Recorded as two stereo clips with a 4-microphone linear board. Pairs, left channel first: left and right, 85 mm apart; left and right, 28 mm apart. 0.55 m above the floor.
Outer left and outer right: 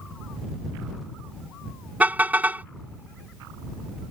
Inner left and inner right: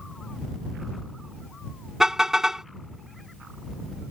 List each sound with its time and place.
2.0 s a car horn: 20° right (ahead or behind)